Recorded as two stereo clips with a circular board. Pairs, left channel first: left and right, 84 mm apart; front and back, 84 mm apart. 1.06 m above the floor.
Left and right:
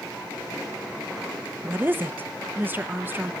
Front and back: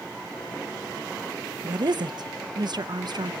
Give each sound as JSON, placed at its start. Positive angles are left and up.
{"t": 1.6, "sound": "a woman speaking", "azimuth_deg": -155, "distance_m": 0.7}